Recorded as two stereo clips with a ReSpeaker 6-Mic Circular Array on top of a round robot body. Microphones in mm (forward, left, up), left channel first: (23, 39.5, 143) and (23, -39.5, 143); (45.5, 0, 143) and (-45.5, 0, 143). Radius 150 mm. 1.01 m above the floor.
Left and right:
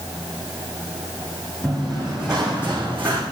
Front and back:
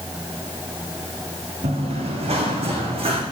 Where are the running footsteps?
Straight behind, 4.5 m; by 3.2 s 155° right, 4 m.